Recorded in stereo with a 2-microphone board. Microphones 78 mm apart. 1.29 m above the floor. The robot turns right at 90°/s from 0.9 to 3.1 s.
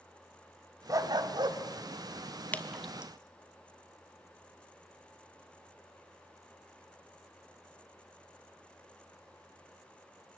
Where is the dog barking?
130° right, 1.5 m; by 1.6 s 70° right, 1.5 m.